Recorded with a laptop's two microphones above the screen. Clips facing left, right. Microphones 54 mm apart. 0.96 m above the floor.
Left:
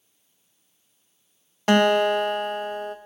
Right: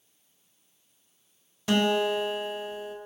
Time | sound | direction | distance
1.7 | a guitar | 55° left (ahead or behind) | 0.7 m